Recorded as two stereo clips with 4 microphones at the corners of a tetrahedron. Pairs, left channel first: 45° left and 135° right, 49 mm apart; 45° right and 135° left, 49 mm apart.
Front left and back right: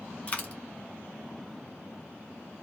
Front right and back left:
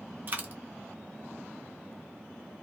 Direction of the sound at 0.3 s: 95° left.